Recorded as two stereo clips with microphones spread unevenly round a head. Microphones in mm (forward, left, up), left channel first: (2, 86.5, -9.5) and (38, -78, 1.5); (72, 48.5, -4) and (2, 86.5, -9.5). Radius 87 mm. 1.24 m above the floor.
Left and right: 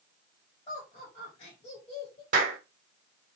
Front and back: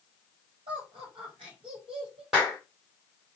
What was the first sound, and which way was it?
Laughter, 165° left.